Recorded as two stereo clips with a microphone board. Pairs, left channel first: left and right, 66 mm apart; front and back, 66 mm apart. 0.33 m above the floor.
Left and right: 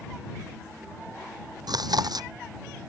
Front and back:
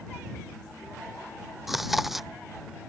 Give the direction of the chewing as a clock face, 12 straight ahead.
3 o'clock.